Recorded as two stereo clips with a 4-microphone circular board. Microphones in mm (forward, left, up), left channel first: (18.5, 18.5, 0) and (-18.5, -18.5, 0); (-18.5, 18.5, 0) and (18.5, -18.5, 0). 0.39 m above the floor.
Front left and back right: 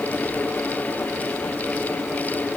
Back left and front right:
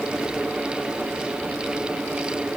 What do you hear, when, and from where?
Only background noise.